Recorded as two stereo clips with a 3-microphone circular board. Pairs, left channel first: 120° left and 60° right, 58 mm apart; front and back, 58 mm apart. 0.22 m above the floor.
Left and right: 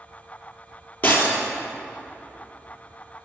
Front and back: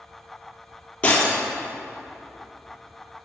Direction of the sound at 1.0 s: 65° left.